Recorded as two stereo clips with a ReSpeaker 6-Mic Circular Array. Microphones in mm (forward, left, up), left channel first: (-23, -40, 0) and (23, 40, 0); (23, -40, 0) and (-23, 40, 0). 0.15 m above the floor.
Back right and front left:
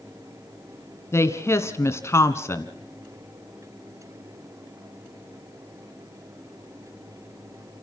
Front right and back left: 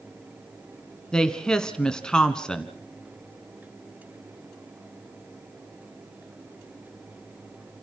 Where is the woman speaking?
135° right, 1.3 m.